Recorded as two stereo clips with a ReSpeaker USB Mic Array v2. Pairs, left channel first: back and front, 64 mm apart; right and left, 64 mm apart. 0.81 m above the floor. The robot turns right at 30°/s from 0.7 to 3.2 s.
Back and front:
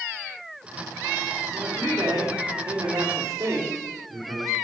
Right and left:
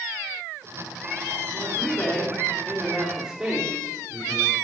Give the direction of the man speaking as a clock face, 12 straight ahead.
1 o'clock.